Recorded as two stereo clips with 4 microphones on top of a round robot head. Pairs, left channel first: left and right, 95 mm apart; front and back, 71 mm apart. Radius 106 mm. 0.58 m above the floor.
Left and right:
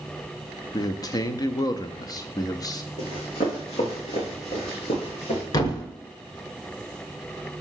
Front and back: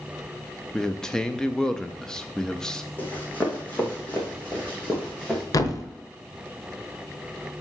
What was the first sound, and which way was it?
A man speaking, 75° left.